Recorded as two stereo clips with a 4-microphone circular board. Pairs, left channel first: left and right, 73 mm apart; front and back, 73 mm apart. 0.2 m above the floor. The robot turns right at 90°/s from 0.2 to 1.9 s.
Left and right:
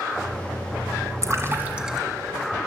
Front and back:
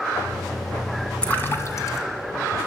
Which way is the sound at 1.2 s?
70° right.